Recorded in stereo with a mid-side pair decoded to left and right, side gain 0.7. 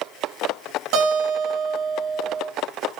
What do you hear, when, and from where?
0.9 s a guitar: 65° right, 7 m